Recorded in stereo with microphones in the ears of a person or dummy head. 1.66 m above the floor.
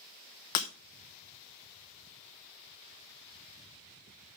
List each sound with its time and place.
0.6 s breaking glass: 25° left (ahead or behind), 0.8 m